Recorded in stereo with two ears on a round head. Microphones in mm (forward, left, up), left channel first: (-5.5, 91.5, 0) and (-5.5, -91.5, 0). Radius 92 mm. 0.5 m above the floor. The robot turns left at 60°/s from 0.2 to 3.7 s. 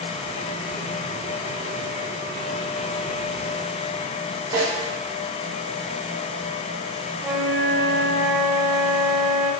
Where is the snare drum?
20° right (ahead or behind), 1.5 m.